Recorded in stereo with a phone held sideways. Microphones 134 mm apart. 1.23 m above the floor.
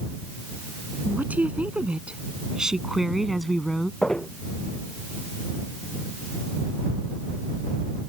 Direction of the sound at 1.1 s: 10° right (ahead or behind).